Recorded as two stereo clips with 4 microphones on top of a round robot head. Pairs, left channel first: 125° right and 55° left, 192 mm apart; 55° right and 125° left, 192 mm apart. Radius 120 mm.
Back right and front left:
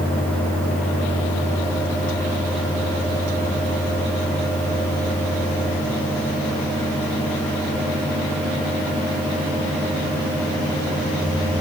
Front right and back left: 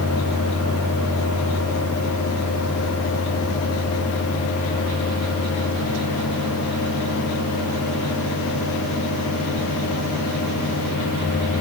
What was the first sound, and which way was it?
Only background noise.